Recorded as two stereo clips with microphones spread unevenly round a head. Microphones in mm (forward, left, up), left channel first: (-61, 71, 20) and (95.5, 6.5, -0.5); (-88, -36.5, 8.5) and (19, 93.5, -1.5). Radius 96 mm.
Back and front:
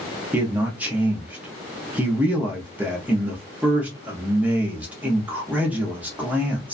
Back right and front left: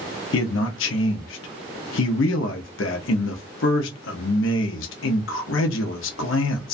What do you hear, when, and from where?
0.3 s a man speaking: 105° right, 0.6 m